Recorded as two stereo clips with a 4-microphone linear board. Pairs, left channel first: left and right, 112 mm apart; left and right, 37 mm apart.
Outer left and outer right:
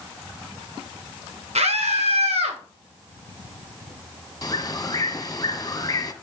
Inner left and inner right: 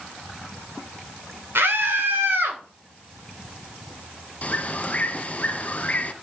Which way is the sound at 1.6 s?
85° right.